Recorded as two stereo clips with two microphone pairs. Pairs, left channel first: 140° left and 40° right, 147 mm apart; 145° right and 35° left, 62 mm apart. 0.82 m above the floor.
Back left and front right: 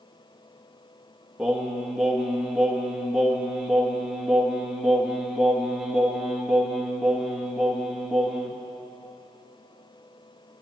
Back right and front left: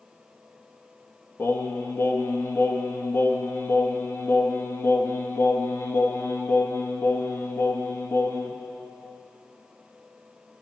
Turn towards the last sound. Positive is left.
turn(degrees=-125)